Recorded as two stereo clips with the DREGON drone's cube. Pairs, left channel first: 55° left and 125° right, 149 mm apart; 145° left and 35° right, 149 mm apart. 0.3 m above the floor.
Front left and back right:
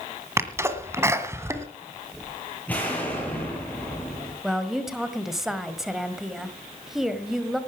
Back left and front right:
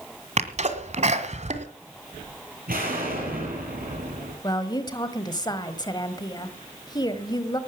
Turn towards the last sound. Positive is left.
turn(degrees=150)